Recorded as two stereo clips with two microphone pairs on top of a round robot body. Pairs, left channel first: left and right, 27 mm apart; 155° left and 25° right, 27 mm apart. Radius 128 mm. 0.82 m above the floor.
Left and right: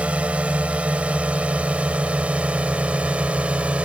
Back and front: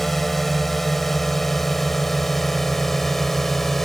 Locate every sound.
0.0 s a drone: 125° right; by 3.9 s 130° right